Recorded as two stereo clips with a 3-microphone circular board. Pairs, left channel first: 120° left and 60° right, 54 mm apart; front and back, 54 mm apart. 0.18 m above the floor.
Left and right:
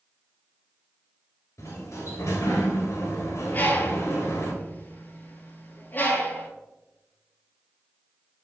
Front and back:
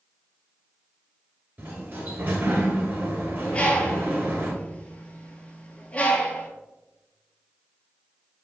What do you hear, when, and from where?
1.6 s a sliding door: 130° left, 1.0 m
3.5 s a bird: 70° left, 0.6 m